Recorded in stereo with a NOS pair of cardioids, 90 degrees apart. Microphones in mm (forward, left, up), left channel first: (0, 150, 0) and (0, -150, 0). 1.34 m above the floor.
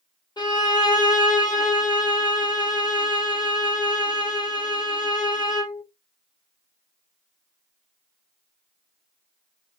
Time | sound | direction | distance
0.4 | a violin | 15° left | 2.5 m